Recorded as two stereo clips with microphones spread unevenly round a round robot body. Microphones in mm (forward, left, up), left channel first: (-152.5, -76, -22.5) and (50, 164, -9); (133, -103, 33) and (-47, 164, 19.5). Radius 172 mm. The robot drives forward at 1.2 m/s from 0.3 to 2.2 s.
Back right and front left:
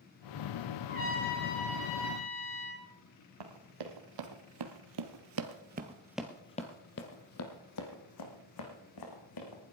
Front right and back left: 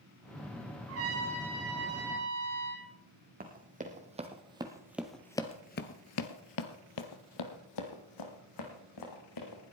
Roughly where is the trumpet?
Behind.